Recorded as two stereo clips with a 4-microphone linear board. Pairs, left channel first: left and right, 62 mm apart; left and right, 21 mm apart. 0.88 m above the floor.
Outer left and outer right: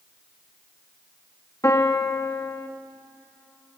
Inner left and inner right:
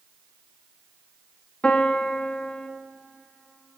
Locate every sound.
1.6 s a piano: 60° left (ahead or behind), 1.4 m